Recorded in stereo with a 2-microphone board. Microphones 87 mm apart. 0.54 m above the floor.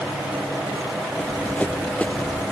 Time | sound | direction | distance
1.2 | running footsteps | 15° left (ahead or behind) | ?